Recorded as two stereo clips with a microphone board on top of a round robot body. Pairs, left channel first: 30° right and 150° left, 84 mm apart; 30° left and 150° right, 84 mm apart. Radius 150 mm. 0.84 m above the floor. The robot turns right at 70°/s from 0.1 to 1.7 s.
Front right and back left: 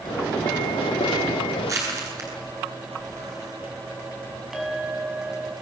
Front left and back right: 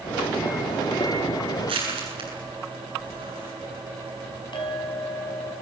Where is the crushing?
155° right, 8.5 m.